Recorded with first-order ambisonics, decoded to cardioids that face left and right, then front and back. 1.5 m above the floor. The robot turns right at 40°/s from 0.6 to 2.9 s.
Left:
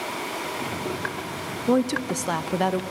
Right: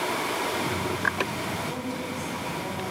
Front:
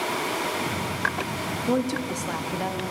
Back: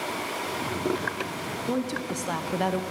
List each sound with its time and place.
1.7 s a woman speaking: 70° left, 0.7 m; by 2.8 s 115° left, 0.7 m